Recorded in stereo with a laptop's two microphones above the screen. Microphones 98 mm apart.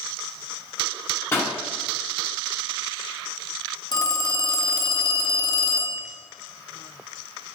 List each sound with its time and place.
1.3 s a pop: 25° left (ahead or behind), 2.5 m
3.9 s a phone ringing: 45° left (ahead or behind), 0.6 m